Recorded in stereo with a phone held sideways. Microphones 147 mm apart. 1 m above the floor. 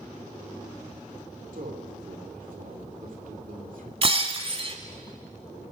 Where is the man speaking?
70° right (ahead or behind), 2.5 m.